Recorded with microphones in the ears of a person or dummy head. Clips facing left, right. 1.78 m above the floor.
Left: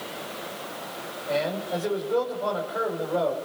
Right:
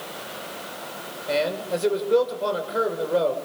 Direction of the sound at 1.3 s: 40° right (ahead or behind).